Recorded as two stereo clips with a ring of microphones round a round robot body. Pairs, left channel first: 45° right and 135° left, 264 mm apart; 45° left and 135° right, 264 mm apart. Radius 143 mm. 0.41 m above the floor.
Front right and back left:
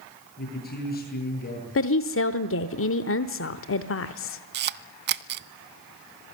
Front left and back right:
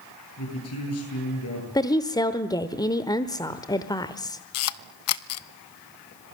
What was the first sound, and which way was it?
A man speaking, 10° left.